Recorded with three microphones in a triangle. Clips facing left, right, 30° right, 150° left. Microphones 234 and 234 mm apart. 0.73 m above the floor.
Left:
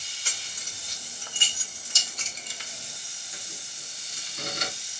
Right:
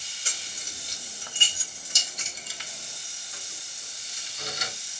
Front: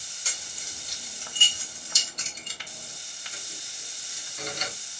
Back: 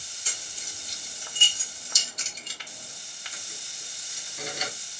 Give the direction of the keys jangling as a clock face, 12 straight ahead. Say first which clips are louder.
Right 2 dB, even; 1 o'clock.